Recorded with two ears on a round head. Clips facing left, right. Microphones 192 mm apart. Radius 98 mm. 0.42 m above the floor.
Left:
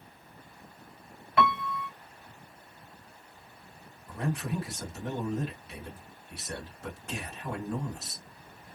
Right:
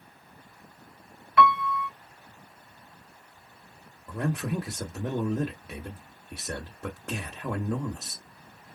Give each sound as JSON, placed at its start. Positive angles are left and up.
{"t": 1.4, "sound": "a piano", "side_deg": 25, "distance_m": 0.7}
{"t": 4.1, "sound": "a man speaking", "side_deg": -50, "distance_m": 1.2}